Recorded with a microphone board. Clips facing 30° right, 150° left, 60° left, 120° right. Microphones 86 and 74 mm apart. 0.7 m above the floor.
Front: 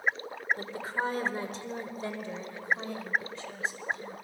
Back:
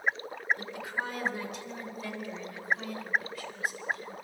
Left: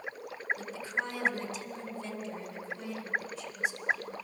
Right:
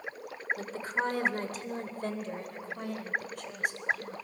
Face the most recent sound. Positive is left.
turn(degrees=-95)